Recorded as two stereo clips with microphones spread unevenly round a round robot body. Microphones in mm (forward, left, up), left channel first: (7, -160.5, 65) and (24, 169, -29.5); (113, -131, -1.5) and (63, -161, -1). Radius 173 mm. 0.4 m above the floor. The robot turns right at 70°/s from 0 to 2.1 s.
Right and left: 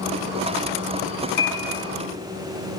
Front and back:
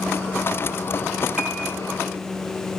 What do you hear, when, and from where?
1.4 s a piano: 70° right, 5 m; by 1.8 s 45° right, 5 m